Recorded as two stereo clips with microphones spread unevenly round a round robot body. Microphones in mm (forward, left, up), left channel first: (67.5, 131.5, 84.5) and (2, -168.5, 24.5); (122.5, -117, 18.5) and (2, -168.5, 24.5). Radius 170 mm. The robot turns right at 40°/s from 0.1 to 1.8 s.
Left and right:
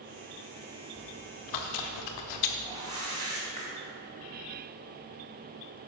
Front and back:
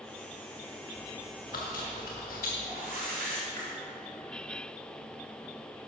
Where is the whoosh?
Straight behind, 2.5 m.